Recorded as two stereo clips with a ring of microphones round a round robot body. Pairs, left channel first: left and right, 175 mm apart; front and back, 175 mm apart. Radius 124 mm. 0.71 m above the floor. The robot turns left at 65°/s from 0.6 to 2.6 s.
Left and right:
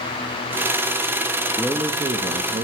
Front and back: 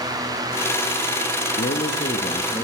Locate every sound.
1.6 s a man speaking: 5° right, 0.6 m; by 2.6 s 75° right, 0.6 m